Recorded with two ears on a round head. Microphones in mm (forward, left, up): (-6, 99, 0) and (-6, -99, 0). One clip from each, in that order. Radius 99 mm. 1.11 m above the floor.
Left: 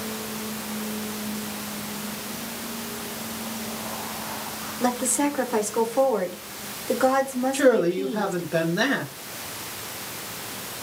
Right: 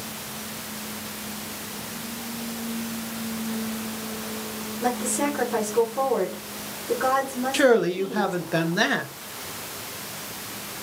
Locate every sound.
4.8 s a woman speaking: 25° left (ahead or behind), 0.9 m
7.5 s a man speaking: 20° right (ahead or behind), 0.6 m